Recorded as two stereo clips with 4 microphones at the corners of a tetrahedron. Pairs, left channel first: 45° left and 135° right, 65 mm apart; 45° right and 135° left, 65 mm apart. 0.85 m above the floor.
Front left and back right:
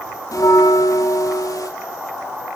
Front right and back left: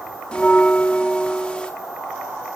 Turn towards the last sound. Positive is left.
turn(degrees=30)